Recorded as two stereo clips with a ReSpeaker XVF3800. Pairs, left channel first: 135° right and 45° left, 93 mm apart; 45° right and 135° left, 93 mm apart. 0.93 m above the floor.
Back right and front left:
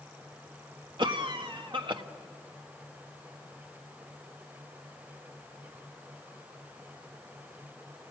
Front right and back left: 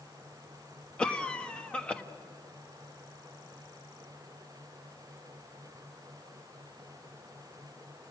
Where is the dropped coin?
No dropped coin in this recording.